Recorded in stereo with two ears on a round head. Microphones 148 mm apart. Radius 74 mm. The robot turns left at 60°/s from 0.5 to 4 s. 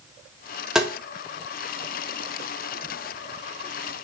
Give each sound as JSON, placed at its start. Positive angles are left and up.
{"t": 0.8, "sound": "tapping", "side_deg": -5, "distance_m": 0.8}